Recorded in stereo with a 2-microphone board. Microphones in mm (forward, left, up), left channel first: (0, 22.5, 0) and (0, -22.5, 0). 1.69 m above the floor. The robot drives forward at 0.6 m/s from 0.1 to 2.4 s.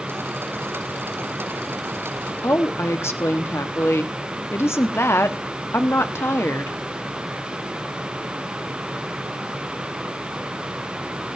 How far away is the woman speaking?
About 1.0 m.